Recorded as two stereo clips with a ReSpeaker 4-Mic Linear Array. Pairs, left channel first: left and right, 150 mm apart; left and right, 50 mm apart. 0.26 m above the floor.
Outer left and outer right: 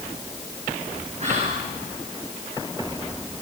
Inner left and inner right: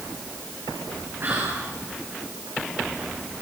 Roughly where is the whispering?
Right.